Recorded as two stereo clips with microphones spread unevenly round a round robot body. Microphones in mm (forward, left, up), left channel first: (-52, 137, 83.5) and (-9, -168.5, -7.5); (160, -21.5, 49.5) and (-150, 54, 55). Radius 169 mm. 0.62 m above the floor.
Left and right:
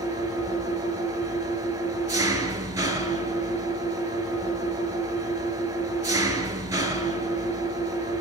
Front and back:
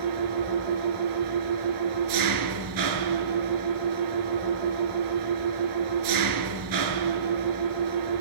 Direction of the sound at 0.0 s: 165° right.